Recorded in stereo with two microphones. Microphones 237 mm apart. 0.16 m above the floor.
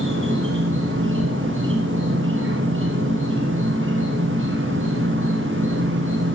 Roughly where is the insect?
Right.